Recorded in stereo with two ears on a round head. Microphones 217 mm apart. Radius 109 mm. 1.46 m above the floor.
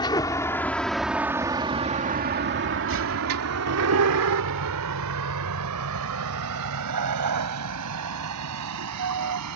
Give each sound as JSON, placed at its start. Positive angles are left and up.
{"t": 0.0, "sound": "a vehicle", "side_deg": 20}